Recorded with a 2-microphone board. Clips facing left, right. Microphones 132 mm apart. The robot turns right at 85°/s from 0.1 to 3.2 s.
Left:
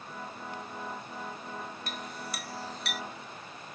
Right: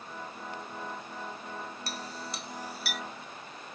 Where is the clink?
40° right (ahead or behind); by 3.0 s 5° left (ahead or behind).